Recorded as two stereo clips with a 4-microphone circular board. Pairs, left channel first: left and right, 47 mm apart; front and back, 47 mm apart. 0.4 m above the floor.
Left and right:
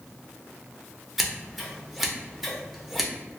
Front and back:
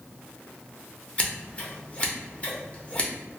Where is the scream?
I don't hear a scream.